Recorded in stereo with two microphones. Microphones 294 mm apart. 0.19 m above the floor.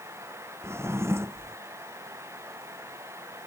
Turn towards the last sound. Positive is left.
turn(degrees=-10)  # may be behind; listen again after turning